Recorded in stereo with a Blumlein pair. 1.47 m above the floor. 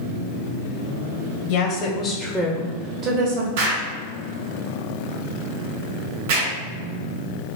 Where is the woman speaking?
50° left, 1.0 m; by 3.5 s 50° right, 1.2 m.